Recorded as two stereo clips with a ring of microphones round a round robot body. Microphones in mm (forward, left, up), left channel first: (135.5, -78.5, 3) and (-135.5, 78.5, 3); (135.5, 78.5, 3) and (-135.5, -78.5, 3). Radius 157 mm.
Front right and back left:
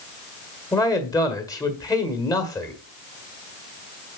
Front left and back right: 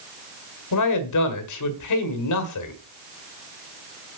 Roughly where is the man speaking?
Ahead left.